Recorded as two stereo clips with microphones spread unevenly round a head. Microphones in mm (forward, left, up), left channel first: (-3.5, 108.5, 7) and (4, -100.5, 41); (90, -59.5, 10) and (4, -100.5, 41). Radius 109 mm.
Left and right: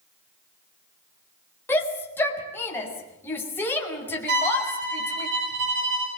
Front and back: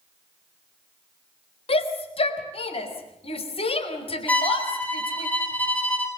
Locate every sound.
1.7 s a shout: 10° left, 4.5 m
4.3 s a violin: 50° right, 8 m